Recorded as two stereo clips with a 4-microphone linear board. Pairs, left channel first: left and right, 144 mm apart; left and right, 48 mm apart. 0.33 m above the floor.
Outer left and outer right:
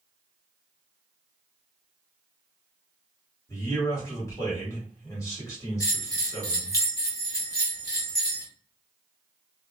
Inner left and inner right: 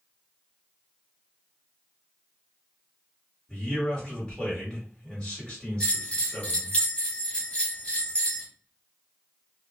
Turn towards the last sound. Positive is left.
turn(degrees=20)  # may be behind; listen again after turning